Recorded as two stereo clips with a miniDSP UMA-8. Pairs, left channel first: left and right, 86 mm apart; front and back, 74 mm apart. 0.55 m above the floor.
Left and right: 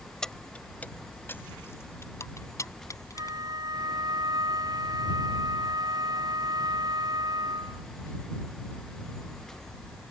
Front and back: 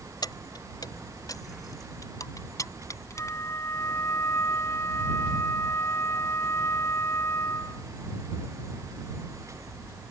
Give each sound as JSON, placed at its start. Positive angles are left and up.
{"t": 0.2, "sound": "keys jangling", "azimuth_deg": 10}
{"t": 3.1, "sound": "a flute", "azimuth_deg": -50}